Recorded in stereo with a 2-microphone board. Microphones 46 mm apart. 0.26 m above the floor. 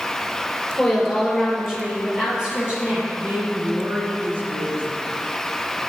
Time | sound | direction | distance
0.7 | a woman speaking | 5° left (ahead or behind) | 4.5 m
3.1 | a woman speaking | 40° right (ahead or behind) | 3.5 m